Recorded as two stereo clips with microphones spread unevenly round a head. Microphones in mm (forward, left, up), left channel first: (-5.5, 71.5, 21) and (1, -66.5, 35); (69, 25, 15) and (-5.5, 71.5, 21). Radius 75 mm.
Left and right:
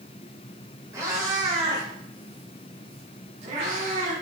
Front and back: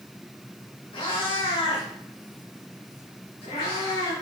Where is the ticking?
No ticking in this recording.